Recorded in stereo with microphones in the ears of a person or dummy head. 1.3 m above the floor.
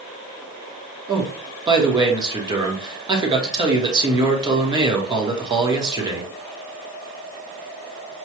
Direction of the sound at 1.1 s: 25° right (ahead or behind).